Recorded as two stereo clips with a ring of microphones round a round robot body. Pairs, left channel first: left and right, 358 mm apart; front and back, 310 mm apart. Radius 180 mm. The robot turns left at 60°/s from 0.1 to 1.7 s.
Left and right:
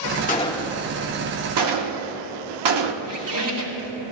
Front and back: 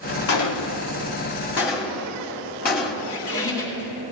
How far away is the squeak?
About 3.5 m.